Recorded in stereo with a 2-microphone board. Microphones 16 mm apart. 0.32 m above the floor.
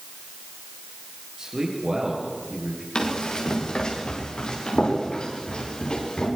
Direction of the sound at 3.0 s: 60° left (ahead or behind).